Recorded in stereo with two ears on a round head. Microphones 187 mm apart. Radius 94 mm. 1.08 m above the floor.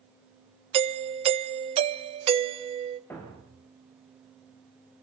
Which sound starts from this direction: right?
A doorbell, at 0.7 s.